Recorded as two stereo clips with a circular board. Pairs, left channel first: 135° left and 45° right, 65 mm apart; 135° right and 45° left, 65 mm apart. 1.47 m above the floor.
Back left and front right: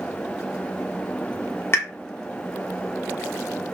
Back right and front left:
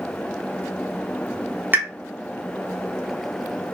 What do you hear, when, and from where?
1.7 s a pop: 95° left, 0.8 m